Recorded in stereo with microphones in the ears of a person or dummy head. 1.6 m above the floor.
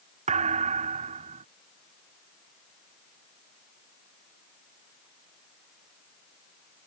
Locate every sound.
0.3 s a thud: 35° right (ahead or behind)